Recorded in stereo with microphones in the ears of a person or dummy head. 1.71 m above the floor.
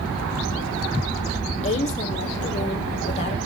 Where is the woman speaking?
35° left (ahead or behind), 1.3 m.